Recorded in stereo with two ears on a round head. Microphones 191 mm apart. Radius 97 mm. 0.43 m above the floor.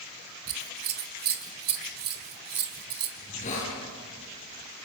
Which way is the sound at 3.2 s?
35° left (ahead or behind).